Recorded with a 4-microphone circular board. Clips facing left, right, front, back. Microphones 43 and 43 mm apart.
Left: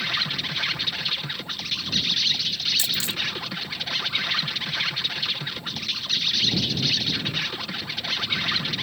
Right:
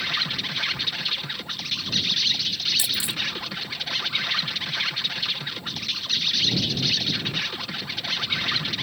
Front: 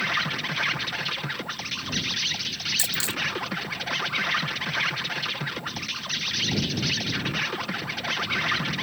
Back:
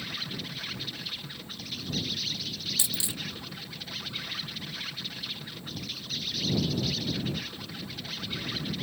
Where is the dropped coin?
140° right.